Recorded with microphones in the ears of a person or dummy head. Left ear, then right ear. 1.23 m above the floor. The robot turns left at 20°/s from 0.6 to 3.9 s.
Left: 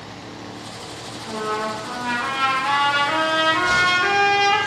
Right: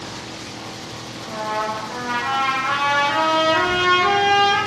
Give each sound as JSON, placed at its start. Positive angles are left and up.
{"t": 1.2, "sound": "a trumpet", "azimuth_deg": 80, "distance_m": 1.2}